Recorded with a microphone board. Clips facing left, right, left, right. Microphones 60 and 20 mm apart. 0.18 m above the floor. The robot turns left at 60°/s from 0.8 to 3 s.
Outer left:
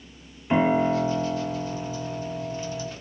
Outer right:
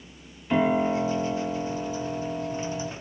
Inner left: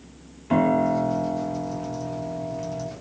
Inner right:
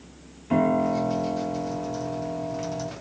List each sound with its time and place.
0.5 s a piano: 20° left (ahead or behind), 0.7 m; by 2.9 s 15° right (ahead or behind), 0.7 m